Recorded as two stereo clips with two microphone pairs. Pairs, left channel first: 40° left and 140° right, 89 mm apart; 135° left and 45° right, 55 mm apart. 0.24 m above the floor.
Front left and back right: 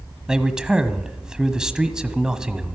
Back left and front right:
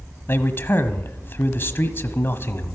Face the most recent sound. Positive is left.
turn(degrees=140)